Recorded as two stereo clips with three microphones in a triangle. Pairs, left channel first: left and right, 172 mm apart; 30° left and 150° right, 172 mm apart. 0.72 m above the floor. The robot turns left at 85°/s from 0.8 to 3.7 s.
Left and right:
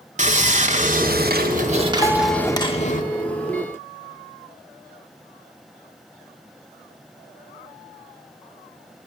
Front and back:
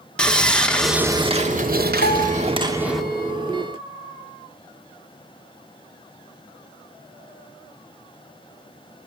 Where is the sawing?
55° right, 1.9 m; by 3.0 s 115° left, 1.9 m.